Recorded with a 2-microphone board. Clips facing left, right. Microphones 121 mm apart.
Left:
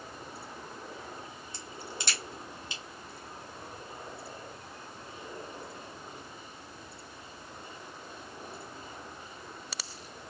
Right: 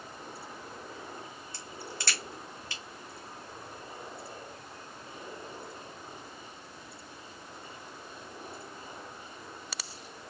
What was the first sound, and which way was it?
A crack, 20° left (ahead or behind).